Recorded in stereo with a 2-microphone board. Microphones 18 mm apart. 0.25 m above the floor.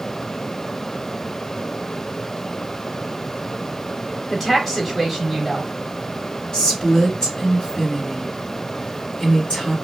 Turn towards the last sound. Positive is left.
turn(degrees=50)  # may be behind; listen again after turning